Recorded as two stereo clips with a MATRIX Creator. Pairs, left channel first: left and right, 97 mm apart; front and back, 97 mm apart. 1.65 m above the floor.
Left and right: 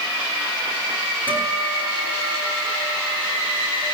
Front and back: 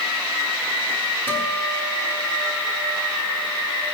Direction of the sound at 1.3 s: 160° left.